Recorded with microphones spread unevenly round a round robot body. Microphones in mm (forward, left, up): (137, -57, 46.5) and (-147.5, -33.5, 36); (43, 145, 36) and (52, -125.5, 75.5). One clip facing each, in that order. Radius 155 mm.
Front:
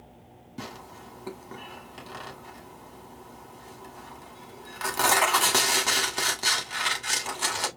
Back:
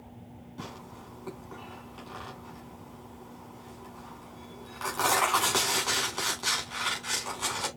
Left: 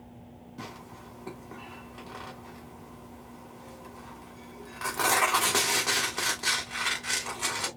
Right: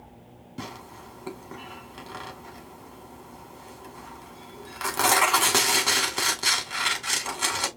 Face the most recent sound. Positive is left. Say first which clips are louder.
# front 4 dB, right 5 dB
turn(degrees=-50)